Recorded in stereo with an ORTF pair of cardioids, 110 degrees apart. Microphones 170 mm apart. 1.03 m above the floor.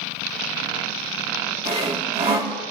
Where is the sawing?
30° right, 2.0 m.